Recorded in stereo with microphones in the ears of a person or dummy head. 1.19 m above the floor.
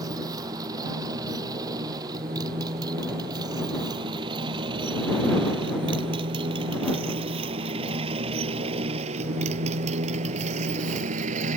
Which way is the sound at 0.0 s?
20° right (ahead or behind).